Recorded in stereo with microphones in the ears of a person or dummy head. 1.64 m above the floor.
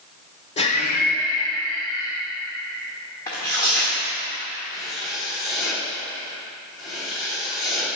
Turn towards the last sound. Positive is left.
turn(degrees=55)  # may be behind; listen again after turning